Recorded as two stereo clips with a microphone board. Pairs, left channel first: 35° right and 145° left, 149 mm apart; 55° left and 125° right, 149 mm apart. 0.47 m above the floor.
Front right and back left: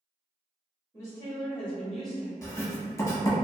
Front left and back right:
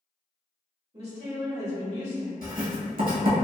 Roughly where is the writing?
Right.